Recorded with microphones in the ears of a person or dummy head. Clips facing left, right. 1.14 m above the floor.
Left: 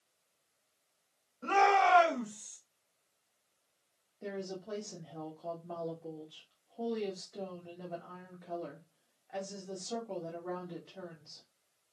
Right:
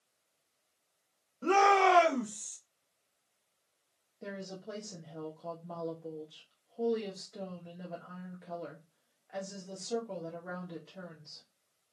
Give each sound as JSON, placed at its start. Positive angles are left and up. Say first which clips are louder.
{"t": 1.4, "sound": "a shout", "louder": "right 2 dB", "side_deg": -55, "distance_m": 0.9}
{"t": 4.2, "sound": "a woman speaking", "louder": "left 2 dB", "side_deg": -5, "distance_m": 1.1}